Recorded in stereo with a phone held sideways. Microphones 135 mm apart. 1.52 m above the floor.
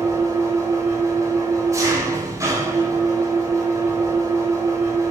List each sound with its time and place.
0.0 s an engine running: 25° right (ahead or behind), 3.5 m